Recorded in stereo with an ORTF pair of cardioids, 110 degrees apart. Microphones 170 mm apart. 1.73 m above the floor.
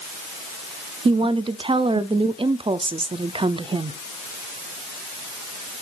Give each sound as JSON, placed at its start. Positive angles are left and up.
{"t": 1.1, "sound": "a woman speaking", "azimuth_deg": -30, "distance_m": 0.6}